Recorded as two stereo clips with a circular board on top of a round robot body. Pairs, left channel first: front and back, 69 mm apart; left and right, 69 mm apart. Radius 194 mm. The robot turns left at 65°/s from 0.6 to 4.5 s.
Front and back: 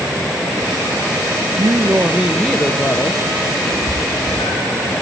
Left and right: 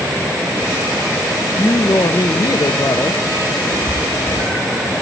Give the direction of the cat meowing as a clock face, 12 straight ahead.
10 o'clock.